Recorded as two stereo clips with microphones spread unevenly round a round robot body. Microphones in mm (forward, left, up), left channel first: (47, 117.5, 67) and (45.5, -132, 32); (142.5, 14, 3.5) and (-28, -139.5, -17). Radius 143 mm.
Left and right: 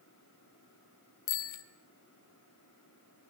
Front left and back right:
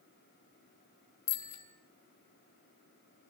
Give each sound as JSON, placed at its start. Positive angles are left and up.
{"t": 1.3, "sound": "a bicycle bell", "azimuth_deg": 80, "distance_m": 3.0}